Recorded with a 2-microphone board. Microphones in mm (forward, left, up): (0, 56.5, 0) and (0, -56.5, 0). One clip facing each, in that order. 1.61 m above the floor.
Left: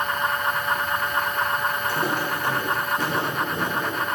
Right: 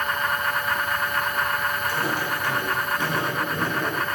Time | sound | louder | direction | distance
1.9 | footsteps | left 1 dB | 55° left (ahead or behind) | 3 m